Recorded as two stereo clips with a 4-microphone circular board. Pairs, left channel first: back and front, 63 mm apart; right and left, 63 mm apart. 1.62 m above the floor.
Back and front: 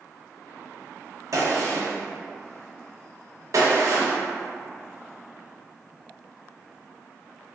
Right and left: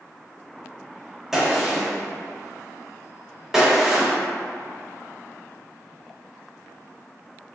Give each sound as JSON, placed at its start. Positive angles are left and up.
{"t": 1.3, "sound": "a gunshot", "azimuth_deg": 10, "distance_m": 0.6}